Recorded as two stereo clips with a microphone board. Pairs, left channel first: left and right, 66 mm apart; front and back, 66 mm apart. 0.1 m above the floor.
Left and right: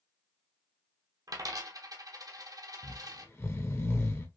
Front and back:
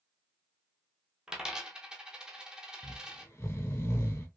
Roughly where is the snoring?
Ahead left.